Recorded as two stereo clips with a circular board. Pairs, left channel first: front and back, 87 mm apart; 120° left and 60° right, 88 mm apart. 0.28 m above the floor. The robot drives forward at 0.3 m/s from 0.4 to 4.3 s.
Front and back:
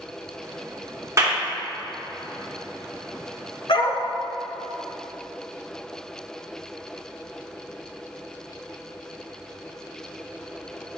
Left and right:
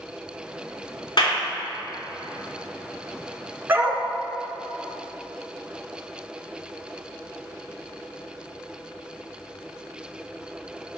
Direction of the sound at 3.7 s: 5° left.